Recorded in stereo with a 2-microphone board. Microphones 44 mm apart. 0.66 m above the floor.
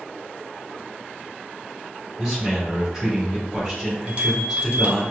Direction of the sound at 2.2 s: 10° right (ahead or behind).